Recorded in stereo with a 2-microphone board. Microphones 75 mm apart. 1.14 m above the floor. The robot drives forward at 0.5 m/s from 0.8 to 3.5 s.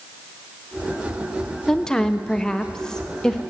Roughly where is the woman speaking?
Centre.